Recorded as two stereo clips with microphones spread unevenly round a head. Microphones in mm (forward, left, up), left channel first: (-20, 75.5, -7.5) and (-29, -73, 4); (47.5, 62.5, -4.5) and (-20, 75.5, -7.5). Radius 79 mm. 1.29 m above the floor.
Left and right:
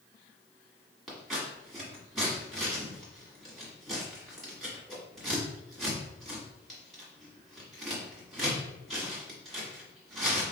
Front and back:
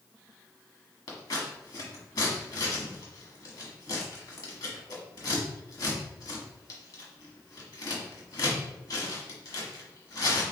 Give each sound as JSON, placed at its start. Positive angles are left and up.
{"t": 1.1, "sound": "scissors", "azimuth_deg": -5, "distance_m": 1.3}